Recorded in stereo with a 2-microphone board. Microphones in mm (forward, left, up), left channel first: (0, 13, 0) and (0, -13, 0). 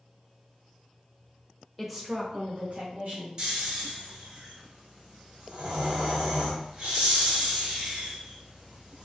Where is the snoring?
40° right (ahead or behind), 1.3 m.